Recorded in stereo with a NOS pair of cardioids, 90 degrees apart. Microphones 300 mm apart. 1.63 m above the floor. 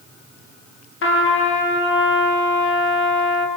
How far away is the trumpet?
About 2 m.